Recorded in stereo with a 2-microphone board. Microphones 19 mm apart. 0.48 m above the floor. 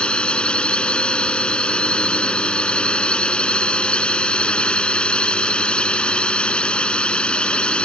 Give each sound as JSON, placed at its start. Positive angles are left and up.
{"t": 0.0, "sound": "a drone", "side_deg": 75}